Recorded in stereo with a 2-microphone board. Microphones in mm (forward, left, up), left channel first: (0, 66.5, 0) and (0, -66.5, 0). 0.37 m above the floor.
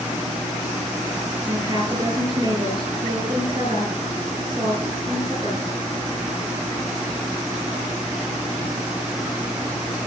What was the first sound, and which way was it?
A woman speaking, 30° right (ahead or behind).